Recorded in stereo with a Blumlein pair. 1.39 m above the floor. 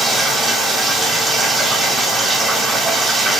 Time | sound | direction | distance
0.0 | running water | 10° right | 1.6 m